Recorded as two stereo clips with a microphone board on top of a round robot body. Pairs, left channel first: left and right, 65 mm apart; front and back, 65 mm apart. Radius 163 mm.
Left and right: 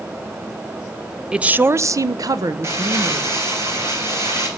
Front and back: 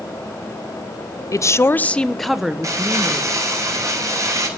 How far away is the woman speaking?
About 0.9 m.